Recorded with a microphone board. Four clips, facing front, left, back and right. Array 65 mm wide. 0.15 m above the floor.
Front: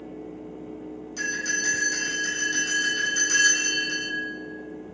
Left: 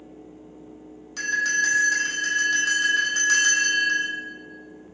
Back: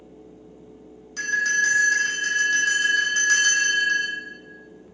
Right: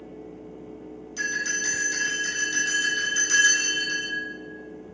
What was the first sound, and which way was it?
A bell, 95° left.